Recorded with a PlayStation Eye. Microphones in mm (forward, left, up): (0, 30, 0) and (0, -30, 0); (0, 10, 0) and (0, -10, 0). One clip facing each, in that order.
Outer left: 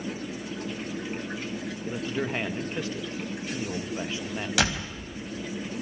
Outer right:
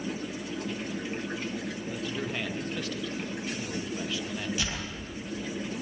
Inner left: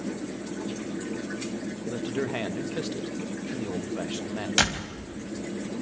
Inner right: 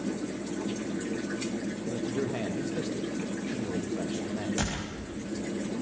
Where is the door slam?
80° left, 4 m.